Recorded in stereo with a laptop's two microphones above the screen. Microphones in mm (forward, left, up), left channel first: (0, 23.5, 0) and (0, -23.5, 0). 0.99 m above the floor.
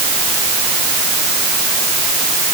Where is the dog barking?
No dog barking in this recording.